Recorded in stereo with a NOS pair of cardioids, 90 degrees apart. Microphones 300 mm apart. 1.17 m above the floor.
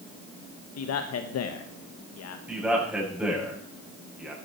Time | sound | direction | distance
0.8 | a man speaking | 55° left | 1.3 m
2.5 | a man speaking | 5° right | 7 m